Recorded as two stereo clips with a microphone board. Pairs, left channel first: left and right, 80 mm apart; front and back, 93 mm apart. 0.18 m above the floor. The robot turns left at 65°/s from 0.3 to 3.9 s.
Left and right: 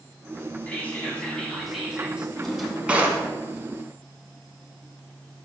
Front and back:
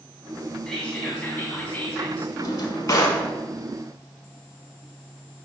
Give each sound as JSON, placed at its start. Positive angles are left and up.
{"t": 0.7, "sound": "whispering", "azimuth_deg": 65, "distance_m": 1.0}
{"t": 2.4, "sound": "a drawer", "azimuth_deg": 15, "distance_m": 0.6}